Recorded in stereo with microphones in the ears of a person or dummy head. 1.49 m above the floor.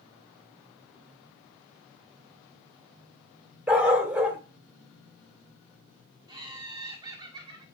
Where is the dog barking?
10° right (ahead or behind), 1.3 m.